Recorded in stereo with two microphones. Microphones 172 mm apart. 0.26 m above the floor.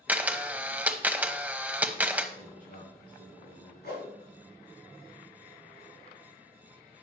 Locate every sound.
0.1 s a camera shutter: 10° right (ahead or behind), 0.7 m
2.4 s a man speaking: 55° left (ahead or behind), 5 m
3.8 s a whoosh: 70° left (ahead or behind), 4.5 m